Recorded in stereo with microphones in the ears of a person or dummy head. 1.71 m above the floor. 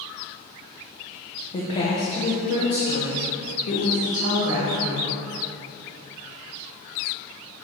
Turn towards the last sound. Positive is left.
turn(degrees=80)